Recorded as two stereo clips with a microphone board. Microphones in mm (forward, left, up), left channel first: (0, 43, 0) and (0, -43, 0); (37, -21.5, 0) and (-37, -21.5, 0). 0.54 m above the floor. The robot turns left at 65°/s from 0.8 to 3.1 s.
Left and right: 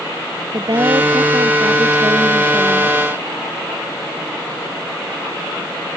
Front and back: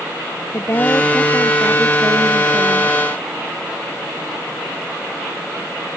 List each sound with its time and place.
0.5 s a woman speaking: 50° right; by 3.0 s 170° left